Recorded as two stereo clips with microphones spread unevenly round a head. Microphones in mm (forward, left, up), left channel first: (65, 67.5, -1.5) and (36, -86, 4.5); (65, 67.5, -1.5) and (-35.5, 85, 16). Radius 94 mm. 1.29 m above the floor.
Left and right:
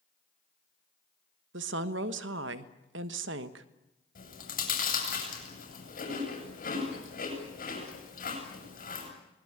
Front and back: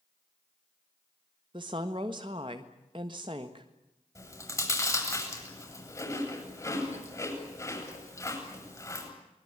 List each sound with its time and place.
1.5 s a woman speaking: 125° right, 1.3 m
4.2 s chewing: 50° left, 7.5 m